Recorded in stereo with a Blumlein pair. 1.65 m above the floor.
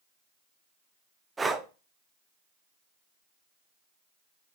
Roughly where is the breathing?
Ahead.